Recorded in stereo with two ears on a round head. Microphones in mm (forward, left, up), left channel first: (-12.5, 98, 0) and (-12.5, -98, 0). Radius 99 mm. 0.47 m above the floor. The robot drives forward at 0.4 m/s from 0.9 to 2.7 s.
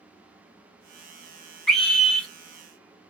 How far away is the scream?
About 1.6 m.